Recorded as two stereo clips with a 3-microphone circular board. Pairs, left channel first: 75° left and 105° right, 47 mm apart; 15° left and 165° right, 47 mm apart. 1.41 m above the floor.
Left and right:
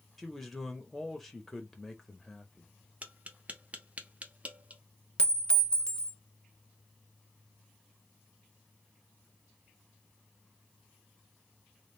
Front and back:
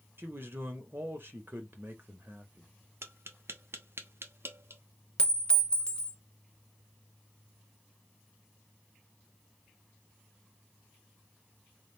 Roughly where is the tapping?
Behind right.